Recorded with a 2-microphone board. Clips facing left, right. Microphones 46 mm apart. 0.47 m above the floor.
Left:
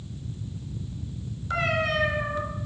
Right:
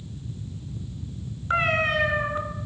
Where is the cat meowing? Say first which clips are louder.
Right 3 dB; 35° right (ahead or behind), 2 m.